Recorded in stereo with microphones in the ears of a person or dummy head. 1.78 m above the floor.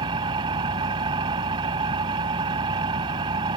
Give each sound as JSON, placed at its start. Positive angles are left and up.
{"t": 0.0, "sound": "an engine running", "side_deg": -25}